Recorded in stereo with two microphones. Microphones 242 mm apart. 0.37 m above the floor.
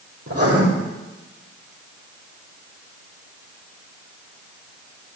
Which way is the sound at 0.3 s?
75° right (ahead or behind).